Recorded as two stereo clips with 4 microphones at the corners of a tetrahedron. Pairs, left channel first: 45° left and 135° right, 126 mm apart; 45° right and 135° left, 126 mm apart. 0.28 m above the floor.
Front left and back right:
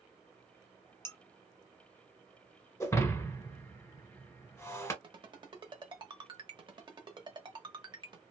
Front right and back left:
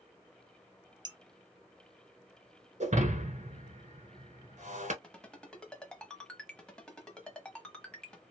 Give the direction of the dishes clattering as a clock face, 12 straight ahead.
8 o'clock.